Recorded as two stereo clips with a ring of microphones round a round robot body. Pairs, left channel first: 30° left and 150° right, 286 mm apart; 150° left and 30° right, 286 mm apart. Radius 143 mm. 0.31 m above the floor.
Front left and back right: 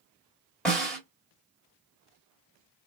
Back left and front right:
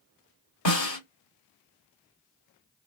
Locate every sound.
0.7 s a snare drum: 115° left, 2.5 m